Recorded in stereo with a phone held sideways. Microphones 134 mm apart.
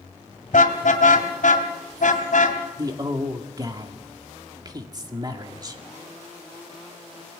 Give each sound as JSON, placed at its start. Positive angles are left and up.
{"t": 0.5, "sound": "a car horn", "side_deg": 80, "distance_m": 2.5}
{"t": 2.8, "sound": "a man speaking", "side_deg": -30, "distance_m": 2.0}